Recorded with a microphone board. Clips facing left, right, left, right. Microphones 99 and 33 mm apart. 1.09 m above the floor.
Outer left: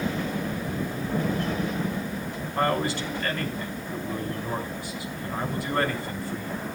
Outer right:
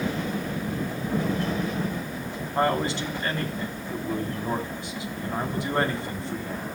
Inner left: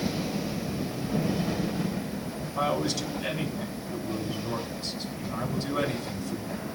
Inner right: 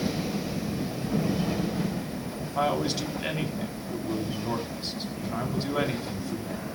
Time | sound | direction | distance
2.5 | a man speaking | 20° right (ahead or behind) | 3 m